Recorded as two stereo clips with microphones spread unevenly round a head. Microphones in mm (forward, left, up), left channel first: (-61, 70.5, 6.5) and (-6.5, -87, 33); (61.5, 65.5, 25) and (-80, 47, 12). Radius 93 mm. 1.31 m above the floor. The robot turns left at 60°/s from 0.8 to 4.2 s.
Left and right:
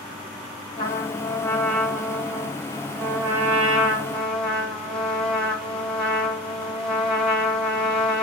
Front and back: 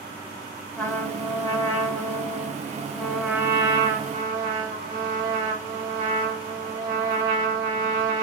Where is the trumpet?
60° left, 1.1 m; by 8.2 s 140° right, 1.1 m.